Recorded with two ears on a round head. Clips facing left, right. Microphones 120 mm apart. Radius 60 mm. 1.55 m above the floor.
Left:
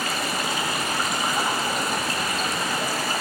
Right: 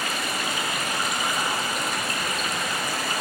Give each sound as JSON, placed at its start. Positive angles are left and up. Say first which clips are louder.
{"t": 0.0, "sound": "running water", "louder": "left 2 dB", "side_deg": 30, "distance_m": 0.9}